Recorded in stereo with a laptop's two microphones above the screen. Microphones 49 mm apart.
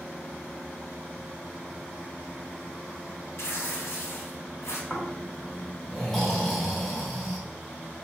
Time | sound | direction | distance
3.4 | tearing paper | 65° left (ahead or behind) | 1.3 m
4.9 | snoring | 5° left (ahead or behind) | 1.5 m